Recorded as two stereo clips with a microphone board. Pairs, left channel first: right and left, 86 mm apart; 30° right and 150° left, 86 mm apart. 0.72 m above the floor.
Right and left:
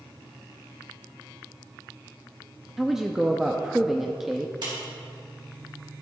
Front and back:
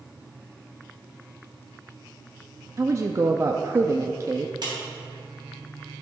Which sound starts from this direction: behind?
A woman speaking, at 2.8 s.